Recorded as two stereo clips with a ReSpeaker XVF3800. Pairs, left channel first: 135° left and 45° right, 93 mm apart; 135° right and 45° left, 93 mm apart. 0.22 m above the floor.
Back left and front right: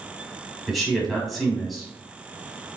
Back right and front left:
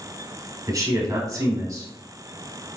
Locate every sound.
0.7 s a man speaking: 45° left, 1.3 m